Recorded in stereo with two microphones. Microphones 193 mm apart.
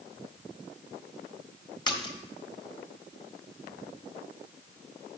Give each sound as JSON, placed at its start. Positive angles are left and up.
{"t": 1.9, "sound": "a splash", "side_deg": 20, "distance_m": 1.2}